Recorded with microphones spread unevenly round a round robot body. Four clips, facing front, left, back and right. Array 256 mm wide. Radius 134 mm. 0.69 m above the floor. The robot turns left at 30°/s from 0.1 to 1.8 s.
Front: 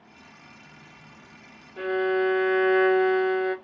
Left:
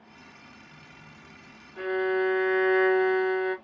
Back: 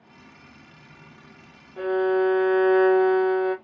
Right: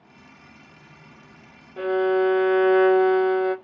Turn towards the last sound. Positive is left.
turn(degrees=-100)